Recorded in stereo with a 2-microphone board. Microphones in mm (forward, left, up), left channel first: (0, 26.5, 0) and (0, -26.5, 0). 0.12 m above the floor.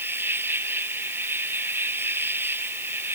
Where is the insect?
40° right (ahead or behind).